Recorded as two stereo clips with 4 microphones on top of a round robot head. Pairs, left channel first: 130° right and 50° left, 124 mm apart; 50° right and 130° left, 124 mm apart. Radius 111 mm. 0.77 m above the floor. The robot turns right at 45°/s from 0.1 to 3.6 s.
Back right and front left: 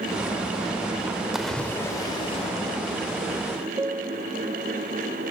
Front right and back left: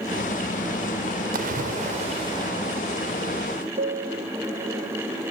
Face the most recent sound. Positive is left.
turn(degrees=125)